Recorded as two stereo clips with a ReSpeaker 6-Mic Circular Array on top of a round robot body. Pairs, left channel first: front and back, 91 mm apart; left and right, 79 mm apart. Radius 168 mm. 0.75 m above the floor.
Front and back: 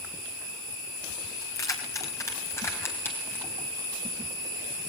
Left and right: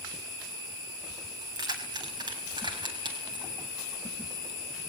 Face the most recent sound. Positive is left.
turn(degrees=-70)